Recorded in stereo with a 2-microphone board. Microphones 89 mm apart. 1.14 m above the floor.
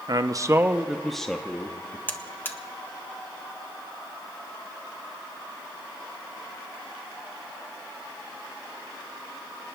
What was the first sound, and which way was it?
A man speaking, 50° right (ahead or behind).